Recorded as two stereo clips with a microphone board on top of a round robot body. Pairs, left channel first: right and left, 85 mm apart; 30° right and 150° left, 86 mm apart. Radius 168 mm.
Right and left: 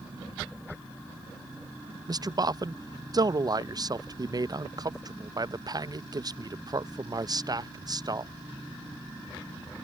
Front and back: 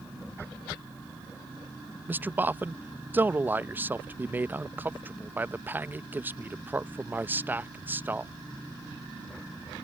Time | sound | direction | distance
2.1 | a man speaking | 90° left | ?